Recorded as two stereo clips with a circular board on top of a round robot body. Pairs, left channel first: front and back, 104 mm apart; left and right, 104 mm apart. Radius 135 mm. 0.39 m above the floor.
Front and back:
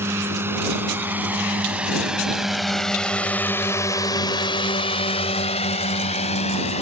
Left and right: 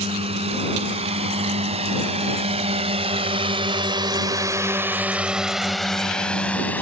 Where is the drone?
115° right; by 6.8 s 15° left.